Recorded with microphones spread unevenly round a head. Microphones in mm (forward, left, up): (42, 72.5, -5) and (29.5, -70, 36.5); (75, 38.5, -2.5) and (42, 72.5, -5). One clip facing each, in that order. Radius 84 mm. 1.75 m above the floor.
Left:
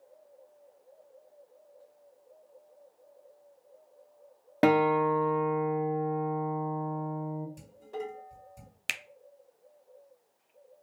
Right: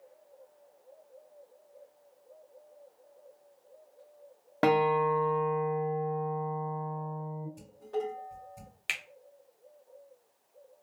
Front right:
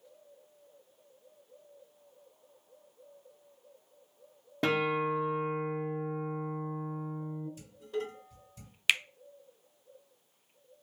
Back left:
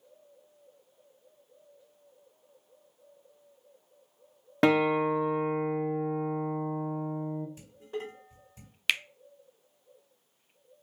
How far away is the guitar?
About 0.7 m.